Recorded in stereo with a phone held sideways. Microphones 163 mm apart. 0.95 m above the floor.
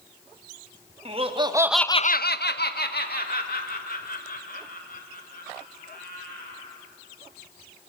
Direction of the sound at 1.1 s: 35° right (ahead or behind).